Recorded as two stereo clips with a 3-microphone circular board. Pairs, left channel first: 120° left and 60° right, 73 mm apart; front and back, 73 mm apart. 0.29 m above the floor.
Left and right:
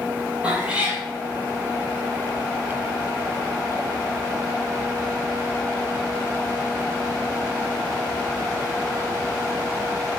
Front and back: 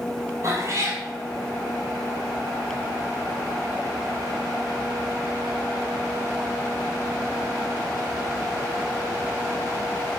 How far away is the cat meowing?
About 0.8 m.